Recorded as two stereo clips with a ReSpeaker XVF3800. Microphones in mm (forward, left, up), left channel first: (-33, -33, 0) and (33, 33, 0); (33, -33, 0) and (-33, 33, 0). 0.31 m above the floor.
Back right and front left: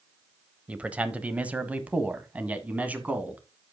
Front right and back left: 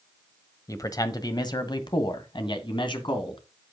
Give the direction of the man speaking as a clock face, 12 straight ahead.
1 o'clock.